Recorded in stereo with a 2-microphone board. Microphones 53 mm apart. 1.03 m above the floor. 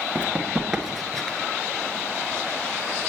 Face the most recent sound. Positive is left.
turn(degrees=15)  # may be behind; listen again after turning